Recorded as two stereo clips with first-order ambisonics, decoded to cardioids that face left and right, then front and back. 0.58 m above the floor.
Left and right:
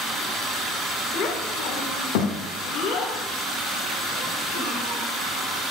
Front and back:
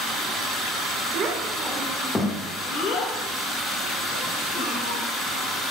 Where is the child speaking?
130° left, 1.3 m; by 5.0 s 15° left, 3 m.